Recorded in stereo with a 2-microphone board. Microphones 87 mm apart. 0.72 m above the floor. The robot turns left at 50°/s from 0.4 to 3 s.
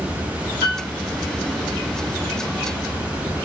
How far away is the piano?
About 3 m.